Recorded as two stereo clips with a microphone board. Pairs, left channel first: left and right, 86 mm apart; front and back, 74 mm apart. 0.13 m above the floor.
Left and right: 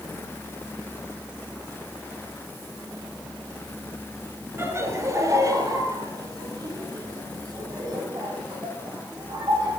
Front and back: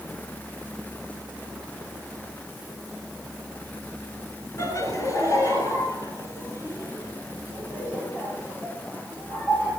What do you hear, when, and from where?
4.6 s laughter: 35° right, 2.5 m; by 9.7 s 50° right, 7.5 m